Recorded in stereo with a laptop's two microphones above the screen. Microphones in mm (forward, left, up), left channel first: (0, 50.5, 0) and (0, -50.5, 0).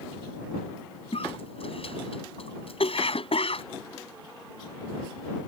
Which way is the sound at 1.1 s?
70° left (ahead or behind).